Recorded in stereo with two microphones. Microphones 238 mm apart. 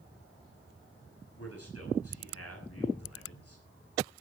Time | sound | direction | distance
1.4 | a man speaking | 75° left (ahead or behind) | 10 m